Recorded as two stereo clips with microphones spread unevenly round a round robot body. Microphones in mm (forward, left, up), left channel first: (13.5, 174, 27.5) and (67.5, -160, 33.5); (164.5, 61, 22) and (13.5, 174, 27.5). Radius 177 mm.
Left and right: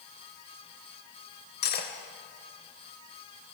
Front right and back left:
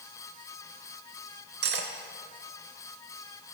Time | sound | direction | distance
1.6 | cutlery clinking | 160° left | 0.7 m